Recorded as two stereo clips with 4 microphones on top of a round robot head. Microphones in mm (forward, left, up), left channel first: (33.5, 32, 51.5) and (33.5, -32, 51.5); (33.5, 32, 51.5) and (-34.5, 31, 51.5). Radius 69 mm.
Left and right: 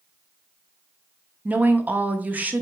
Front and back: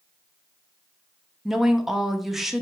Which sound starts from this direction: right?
A woman speaking, at 1.4 s.